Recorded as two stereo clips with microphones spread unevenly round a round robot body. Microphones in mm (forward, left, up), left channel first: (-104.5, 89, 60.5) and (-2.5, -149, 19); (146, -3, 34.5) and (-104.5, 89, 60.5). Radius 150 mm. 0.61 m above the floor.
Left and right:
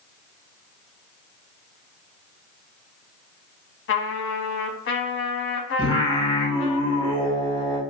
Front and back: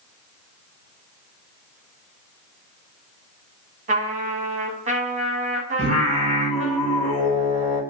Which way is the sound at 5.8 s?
Straight behind.